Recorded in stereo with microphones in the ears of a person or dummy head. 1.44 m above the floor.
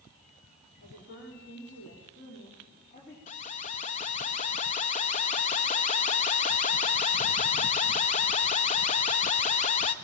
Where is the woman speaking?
60° left (ahead or behind), 4 m; by 3.2 s 40° left (ahead or behind), 3.5 m.